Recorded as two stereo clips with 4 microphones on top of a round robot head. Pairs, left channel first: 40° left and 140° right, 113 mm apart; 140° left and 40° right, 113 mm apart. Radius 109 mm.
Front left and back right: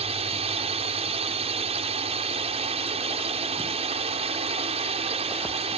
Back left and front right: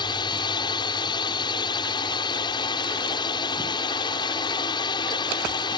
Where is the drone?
170° right.